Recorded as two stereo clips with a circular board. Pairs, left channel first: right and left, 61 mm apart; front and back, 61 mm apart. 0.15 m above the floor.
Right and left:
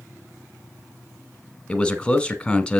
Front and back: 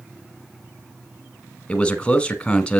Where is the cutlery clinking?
I don't hear cutlery clinking.